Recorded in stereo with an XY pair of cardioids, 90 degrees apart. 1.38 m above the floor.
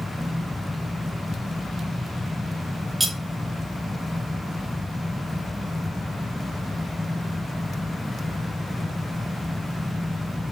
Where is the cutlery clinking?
20° right, 5 m.